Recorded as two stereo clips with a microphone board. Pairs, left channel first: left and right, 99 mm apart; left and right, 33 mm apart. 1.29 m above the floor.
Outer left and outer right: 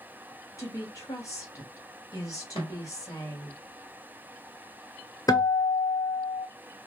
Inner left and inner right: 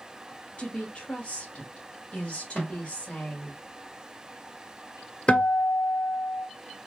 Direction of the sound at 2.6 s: 60° left (ahead or behind).